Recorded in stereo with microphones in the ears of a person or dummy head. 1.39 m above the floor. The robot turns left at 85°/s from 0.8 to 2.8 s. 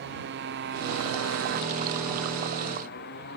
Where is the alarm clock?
No alarm clock in this recording.